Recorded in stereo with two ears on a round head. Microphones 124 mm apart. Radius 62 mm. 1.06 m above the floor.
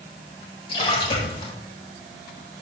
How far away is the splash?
About 2.5 m.